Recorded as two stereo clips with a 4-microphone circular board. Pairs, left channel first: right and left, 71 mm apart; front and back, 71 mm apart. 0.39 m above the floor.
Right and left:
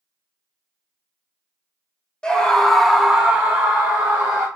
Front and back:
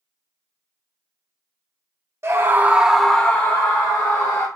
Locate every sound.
2.2 s a scream: 160° right, 1.3 m; by 4.5 s 25° left, 2 m